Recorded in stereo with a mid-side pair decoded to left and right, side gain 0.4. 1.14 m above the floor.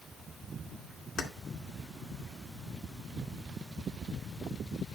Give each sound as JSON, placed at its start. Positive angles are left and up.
{"t": 1.2, "sound": "keys jangling", "azimuth_deg": 70, "distance_m": 2.0}